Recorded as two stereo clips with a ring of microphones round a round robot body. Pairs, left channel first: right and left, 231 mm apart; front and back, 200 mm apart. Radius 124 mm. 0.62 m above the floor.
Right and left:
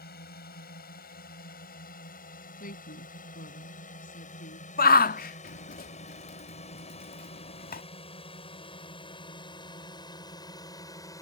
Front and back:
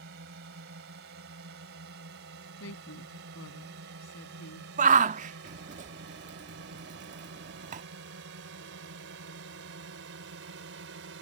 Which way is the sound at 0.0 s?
140° right.